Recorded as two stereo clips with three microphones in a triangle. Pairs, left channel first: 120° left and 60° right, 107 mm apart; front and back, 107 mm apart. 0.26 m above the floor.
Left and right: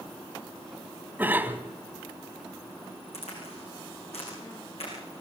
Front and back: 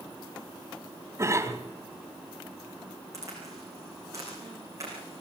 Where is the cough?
125° right, 1.7 m.